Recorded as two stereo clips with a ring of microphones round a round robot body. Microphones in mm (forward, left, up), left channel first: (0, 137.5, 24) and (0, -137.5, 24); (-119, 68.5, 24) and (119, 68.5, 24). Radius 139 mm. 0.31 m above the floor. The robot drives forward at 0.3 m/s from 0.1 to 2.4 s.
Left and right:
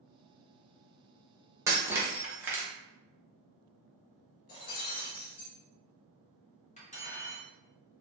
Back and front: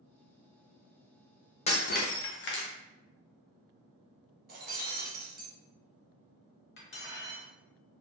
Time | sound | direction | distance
1.7 | breaking glass | 160° right | 0.5 m
4.5 | breaking glass | 50° left | 1.2 m
6.8 | cutlery clinking | 150° left | 0.9 m